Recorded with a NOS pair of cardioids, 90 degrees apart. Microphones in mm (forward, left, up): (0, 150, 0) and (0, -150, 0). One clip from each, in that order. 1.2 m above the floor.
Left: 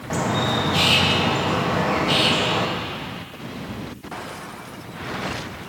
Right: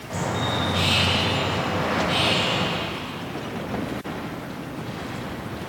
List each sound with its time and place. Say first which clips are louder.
0.1 s a bird: left 4 dB; 60° left, 2 m